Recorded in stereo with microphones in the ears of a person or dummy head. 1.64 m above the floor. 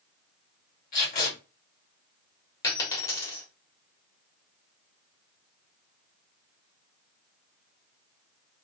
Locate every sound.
0.9 s tape being pulled: 45° left (ahead or behind), 1.8 m
2.6 s a dropped coin: 25° left (ahead or behind), 1.4 m